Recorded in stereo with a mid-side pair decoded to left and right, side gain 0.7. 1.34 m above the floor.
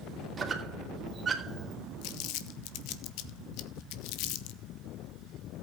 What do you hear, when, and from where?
0.4 s a squeak: 25° right, 1.9 m
2.0 s crumpling: 65° left, 0.9 m